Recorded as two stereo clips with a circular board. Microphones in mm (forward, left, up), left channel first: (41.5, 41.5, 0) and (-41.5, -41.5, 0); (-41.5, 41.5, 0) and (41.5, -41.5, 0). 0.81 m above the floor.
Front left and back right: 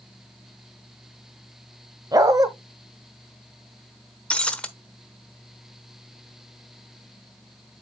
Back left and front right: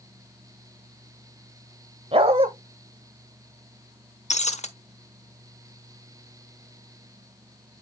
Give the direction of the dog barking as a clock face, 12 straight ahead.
3 o'clock.